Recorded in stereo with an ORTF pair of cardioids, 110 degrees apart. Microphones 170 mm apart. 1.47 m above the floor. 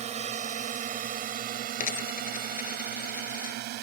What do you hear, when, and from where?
0.0 s a drone: 40° right; by 3.8 s 75° right
1.8 s a dropped coin: 55° left